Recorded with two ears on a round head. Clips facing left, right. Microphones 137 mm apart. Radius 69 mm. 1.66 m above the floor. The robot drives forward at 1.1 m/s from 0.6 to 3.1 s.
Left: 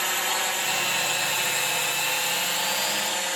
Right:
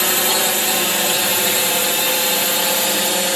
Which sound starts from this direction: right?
A drone, at 0.0 s.